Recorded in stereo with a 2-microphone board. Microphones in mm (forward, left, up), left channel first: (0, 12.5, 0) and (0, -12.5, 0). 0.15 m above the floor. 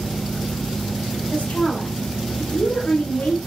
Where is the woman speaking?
65° left (ahead or behind), 3 m.